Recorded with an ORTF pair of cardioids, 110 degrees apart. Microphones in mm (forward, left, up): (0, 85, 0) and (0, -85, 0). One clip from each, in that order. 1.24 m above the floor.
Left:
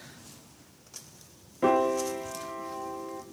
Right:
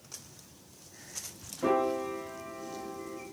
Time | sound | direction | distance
1.6 | a piano | 40° left | 3 m